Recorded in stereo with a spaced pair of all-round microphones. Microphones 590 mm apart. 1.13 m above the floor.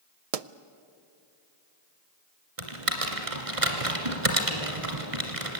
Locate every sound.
0.3 s a pop: 75° right (ahead or behind), 0.6 m
2.6 s typing on a keyboard: 65° right (ahead or behind), 2.5 m